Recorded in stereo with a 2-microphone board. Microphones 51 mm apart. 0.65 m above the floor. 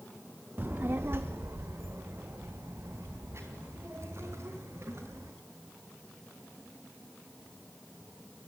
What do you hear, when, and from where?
0.6 s a child speaking: 35° right (ahead or behind), 0.5 m; by 5.3 s 55° right (ahead or behind), 5 m